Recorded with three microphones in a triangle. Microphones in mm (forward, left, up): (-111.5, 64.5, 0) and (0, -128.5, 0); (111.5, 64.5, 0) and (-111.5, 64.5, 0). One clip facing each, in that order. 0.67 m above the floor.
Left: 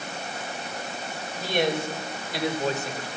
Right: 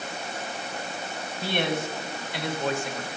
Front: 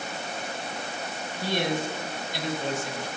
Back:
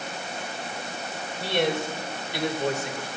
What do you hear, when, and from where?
1.4 s a man speaking: 165° left, 3.5 m; by 3.1 s 170° left, 2.5 m